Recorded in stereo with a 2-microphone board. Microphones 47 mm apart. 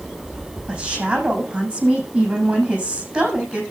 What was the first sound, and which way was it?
A woman speaking, 20° right (ahead or behind).